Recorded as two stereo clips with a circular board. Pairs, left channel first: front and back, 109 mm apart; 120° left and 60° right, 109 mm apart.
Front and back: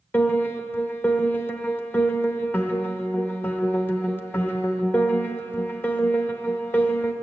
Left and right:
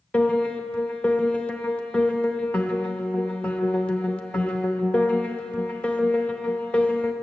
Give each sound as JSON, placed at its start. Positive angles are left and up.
{"t": 0.1, "sound": "a piano", "azimuth_deg": 50, "distance_m": 0.8}